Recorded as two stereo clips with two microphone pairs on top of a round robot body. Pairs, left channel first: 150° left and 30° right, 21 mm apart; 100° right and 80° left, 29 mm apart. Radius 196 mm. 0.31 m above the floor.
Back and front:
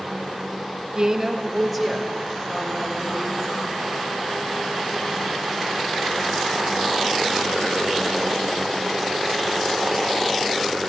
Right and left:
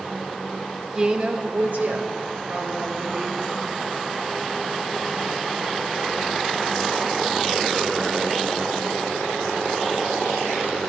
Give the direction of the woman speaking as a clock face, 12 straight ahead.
11 o'clock.